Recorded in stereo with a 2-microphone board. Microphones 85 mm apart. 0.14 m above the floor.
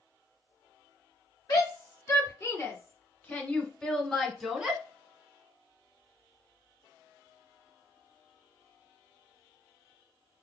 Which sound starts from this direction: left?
A shout, at 1.5 s.